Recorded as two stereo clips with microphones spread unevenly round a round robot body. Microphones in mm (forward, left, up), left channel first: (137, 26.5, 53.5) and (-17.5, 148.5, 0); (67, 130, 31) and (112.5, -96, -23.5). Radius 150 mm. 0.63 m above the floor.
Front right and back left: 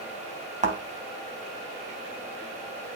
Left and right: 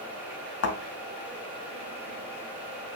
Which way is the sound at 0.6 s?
85° left.